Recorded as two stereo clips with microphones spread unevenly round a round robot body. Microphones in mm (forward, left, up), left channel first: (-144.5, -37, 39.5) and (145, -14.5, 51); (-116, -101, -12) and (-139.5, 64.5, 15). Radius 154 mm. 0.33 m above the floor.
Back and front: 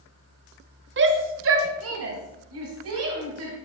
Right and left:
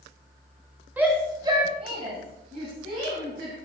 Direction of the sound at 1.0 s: 10° left.